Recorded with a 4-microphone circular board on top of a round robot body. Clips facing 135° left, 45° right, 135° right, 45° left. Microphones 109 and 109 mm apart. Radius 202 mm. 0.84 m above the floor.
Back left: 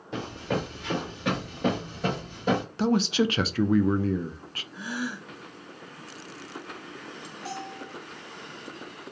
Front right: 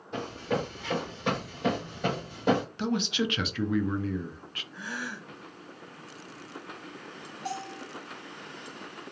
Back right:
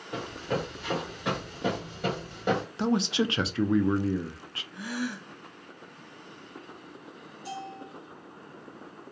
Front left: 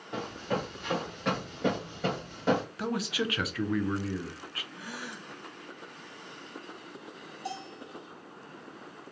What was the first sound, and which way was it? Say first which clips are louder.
Running footsteps: even, back right 1 dB; 140° left.